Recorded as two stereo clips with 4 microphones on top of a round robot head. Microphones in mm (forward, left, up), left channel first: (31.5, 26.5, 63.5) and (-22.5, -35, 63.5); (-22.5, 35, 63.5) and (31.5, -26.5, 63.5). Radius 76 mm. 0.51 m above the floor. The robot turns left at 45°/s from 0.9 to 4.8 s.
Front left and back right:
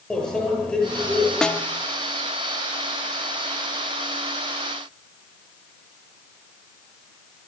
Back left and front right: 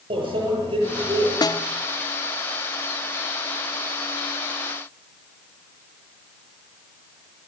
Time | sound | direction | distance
0.1 | a microwave | 35° right | 9 m
1.4 | a snare drum | 130° left | 1.1 m